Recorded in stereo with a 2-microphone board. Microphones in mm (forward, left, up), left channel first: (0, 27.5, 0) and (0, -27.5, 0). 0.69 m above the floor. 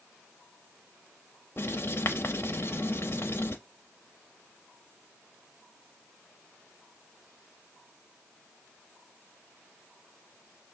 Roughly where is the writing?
Left.